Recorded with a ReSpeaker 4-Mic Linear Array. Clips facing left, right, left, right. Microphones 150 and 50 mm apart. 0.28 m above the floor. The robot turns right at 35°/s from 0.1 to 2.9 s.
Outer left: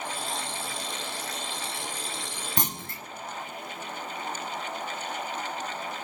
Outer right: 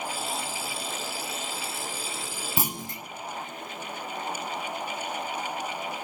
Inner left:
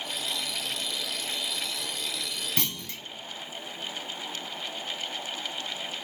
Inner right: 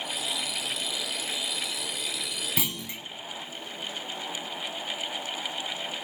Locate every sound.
2.6 s a clunk: 5° right (ahead or behind), 0.7 m; by 3.0 s 15° right (ahead or behind), 0.7 m